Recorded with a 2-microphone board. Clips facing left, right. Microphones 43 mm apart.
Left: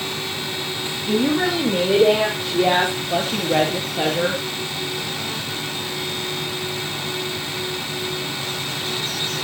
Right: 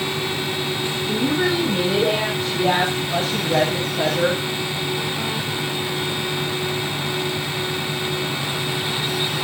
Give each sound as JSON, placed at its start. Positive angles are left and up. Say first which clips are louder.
{"t": 1.1, "sound": "a woman speaking", "louder": "left 2 dB", "side_deg": 70, "distance_m": 4.0}